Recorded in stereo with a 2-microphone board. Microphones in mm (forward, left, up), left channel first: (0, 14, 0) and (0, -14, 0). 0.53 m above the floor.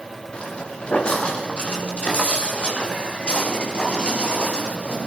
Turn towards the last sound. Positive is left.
turn(degrees=40)  # may be behind; listen again after turning